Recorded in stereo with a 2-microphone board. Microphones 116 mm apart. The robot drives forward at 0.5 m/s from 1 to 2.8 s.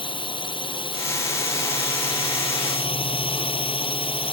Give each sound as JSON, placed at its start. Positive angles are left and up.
{"t": 0.0, "sound": "a drone", "side_deg": 45}